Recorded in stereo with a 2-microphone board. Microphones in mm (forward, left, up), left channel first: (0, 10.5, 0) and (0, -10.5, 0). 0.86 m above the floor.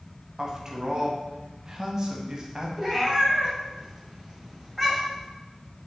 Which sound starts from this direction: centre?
A cat meowing, at 2.8 s.